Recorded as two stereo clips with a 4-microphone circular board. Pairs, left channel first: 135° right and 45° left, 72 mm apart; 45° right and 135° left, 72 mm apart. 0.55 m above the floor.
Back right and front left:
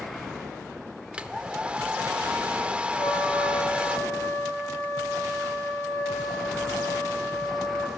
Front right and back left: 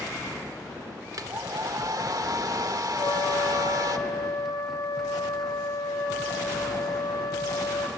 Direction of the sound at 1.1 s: 115° left.